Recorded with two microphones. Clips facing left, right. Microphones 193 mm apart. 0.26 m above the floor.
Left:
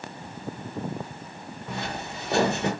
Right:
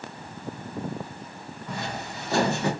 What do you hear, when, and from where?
1.7 s footsteps: 25° left (ahead or behind), 1.8 m; by 2.7 s 20° left (ahead or behind), 2.5 m